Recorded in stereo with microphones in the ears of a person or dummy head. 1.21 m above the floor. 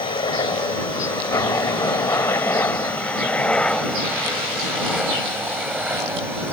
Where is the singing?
I don't hear singing.